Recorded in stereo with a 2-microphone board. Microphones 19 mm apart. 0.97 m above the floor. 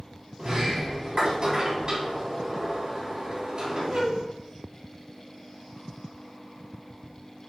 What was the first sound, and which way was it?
A sliding door, 40° right (ahead or behind).